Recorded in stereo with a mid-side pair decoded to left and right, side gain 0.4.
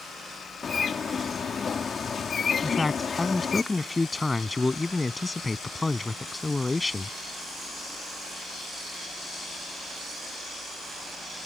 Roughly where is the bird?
Ahead left.